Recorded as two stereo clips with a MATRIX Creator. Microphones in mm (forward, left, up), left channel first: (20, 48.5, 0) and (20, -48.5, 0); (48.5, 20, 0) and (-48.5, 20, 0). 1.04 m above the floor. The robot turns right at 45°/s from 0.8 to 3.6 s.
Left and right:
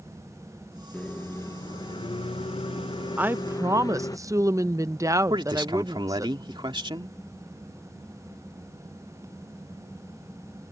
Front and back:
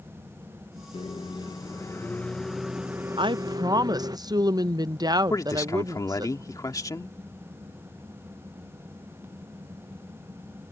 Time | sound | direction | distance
0.9 | a microwave | 15° left | ?
3.2 | a woman speaking | 160° right | ?
5.3 | a man speaking | 55° right | ?